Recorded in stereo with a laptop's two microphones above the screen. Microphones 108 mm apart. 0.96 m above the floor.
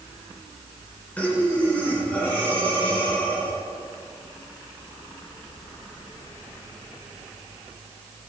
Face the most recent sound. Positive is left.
turn(degrees=15)  # may be behind; listen again after turning